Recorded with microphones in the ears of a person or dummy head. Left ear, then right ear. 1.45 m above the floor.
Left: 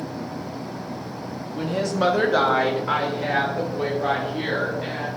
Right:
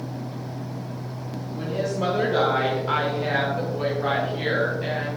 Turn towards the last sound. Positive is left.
turn(degrees=5)  # may be behind; listen again after turning